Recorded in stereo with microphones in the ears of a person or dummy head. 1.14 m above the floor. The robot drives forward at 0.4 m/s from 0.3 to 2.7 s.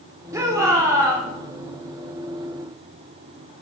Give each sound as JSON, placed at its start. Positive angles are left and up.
{"t": 0.3, "sound": "a shout", "side_deg": -15, "distance_m": 2.0}